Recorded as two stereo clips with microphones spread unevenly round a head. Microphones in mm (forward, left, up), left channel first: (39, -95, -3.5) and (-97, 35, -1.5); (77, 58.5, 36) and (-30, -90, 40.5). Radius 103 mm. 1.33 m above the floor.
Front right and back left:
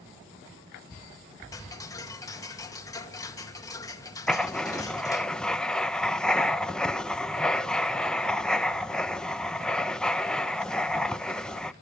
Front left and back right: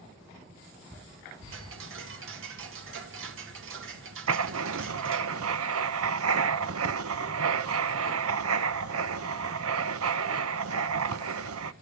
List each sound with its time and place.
1.5 s ticking: 115° right, 2.0 m
4.3 s writing: 130° right, 0.9 m